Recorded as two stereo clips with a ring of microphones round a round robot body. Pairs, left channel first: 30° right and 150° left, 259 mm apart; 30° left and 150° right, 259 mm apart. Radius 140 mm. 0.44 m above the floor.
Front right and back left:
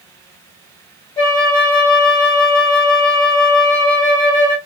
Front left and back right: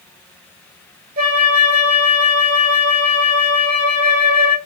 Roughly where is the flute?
Right.